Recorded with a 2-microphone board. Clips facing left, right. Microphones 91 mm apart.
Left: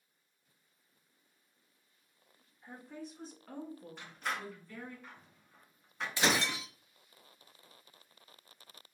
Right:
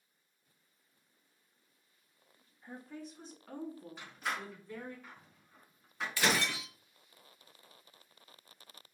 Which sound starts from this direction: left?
Breaking glass, at 6.2 s.